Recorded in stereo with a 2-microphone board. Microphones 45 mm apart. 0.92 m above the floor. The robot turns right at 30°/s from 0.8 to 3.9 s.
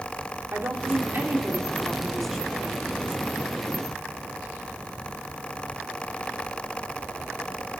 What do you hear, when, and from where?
0.5 s a woman speaking: 55° right, 2.5 m; by 2.8 s 5° left, 2.5 m